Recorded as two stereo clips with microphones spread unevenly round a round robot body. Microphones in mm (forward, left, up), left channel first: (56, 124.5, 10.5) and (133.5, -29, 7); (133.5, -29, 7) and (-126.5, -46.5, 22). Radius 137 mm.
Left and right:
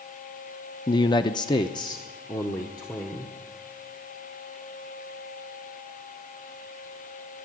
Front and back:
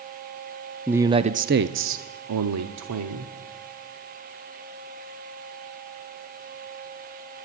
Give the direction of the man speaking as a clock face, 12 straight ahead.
9 o'clock.